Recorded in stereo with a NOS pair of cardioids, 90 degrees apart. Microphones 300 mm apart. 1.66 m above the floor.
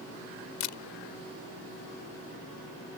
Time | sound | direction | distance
0.6 | a camera shutter | 70° left | ?